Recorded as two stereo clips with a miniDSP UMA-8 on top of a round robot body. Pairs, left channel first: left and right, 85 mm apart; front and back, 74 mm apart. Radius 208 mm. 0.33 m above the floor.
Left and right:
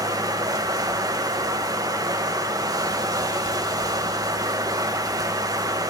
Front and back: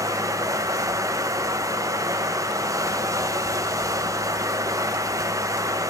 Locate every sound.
0.0 s running water: 135° right, 1.2 m